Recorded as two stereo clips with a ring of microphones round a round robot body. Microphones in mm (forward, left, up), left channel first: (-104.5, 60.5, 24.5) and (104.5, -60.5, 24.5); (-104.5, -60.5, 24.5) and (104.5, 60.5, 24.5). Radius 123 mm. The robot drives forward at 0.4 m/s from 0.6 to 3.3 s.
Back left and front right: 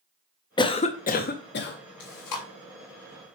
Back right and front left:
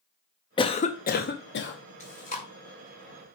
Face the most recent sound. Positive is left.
turn(degrees=155)